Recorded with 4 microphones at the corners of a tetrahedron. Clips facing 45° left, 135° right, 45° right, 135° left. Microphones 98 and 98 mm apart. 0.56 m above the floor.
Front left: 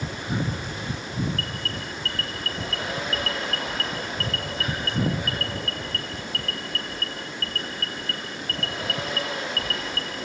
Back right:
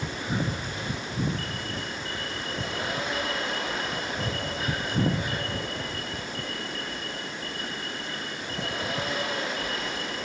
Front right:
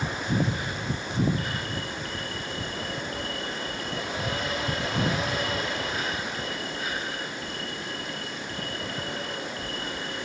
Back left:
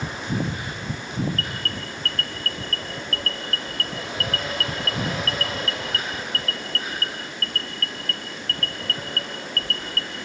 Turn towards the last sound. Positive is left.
turn(degrees=30)